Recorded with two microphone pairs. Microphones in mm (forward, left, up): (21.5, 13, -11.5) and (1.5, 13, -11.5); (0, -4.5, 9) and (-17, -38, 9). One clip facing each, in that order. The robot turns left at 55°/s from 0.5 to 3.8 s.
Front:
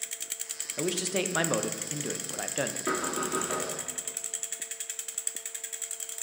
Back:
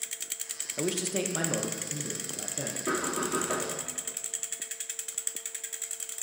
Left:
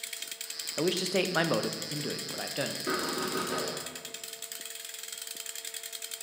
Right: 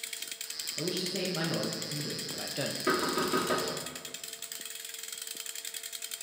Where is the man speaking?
90° left, 0.5 m; by 2.8 s 25° right, 0.5 m.